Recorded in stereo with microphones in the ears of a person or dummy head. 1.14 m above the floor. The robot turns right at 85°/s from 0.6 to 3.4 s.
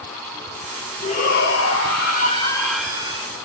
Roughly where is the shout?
Ahead left.